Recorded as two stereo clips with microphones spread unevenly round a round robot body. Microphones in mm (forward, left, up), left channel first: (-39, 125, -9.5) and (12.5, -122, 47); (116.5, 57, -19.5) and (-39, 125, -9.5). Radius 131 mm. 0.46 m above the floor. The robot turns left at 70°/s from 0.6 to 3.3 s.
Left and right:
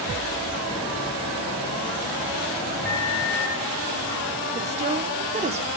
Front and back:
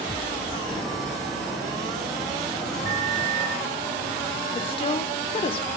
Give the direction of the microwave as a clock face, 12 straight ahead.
6 o'clock.